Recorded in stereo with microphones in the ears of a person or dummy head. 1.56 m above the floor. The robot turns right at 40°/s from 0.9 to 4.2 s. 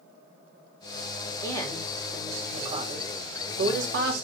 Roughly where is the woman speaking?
Behind.